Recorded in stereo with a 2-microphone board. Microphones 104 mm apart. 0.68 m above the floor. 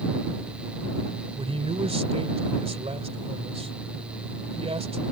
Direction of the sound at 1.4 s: 75° right (ahead or behind).